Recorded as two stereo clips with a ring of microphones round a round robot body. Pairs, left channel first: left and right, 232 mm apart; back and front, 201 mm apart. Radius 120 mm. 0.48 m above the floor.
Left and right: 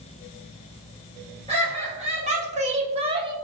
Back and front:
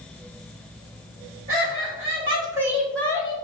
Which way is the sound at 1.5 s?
30° right.